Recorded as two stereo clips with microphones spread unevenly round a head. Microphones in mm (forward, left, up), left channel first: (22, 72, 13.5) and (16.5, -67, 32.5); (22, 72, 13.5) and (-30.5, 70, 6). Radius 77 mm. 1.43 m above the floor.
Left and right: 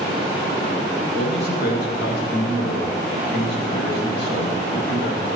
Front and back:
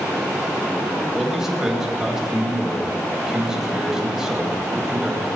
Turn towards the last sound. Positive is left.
turn(degrees=100)